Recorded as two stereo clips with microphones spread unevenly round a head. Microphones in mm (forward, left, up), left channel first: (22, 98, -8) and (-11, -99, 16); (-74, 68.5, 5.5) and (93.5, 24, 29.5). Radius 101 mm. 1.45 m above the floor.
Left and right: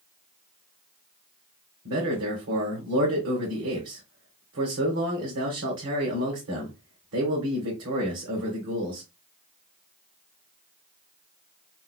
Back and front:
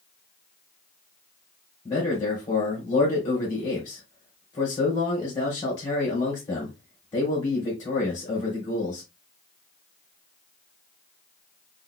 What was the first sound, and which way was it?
A man speaking, 130° right.